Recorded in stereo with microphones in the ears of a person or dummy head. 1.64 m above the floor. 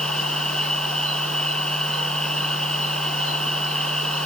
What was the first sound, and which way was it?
A machine running, 5° left (ahead or behind).